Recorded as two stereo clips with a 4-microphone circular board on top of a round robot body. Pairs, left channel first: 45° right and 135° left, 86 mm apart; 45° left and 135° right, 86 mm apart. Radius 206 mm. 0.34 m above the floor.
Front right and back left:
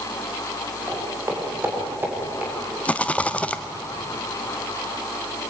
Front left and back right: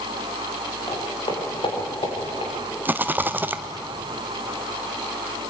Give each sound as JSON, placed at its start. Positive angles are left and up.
{"t": 0.9, "sound": "footsteps", "azimuth_deg": 80, "distance_m": 7.5}
{"t": 2.9, "sound": "a rattle", "azimuth_deg": -100, "distance_m": 1.4}